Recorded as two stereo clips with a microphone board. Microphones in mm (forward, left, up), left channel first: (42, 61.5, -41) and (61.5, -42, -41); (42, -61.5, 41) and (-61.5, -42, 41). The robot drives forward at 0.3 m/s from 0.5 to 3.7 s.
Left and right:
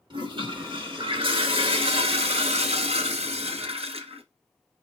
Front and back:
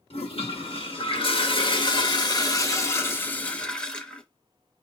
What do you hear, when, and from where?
0.1 s a toilet flushing: 40° right, 1.2 m; by 4.2 s 95° right, 0.8 m